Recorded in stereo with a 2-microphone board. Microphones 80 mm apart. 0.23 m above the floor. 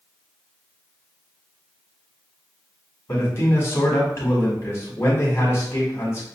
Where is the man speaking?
35° left (ahead or behind), 1.5 m.